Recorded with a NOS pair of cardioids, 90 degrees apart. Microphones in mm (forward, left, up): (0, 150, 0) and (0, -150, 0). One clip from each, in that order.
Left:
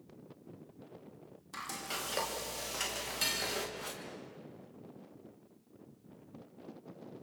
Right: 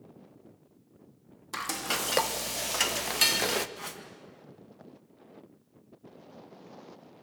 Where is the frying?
65° right, 1.5 m.